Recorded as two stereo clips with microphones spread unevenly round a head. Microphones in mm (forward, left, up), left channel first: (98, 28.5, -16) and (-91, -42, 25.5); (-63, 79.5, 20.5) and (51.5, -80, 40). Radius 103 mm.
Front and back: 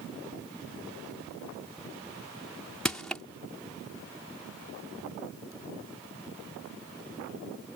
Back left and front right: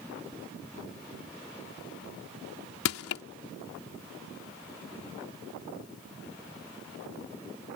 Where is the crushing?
110° left.